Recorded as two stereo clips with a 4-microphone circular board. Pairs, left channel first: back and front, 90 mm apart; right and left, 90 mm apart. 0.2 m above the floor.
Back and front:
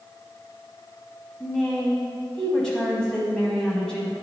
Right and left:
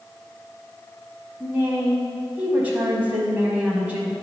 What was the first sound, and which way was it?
A woman speaking, 115° left.